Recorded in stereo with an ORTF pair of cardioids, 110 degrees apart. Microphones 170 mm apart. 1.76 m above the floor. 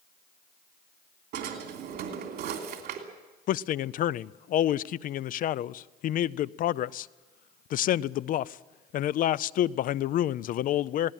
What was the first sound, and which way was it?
A drawer, 65° right.